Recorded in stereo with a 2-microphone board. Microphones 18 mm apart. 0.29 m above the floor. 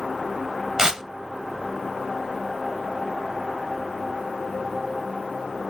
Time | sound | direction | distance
0.8 | tearing paper | 40° right (ahead or behind) | 1.0 m